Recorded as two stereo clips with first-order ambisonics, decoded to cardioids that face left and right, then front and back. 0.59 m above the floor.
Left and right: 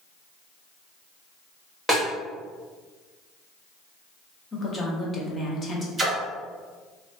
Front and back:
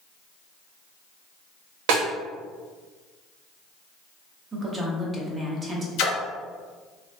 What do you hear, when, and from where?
1.9 s a snare drum: 175° left, 1.0 m
4.5 s a woman speaking: 140° left, 0.6 m
6.0 s a splash: 10° right, 0.6 m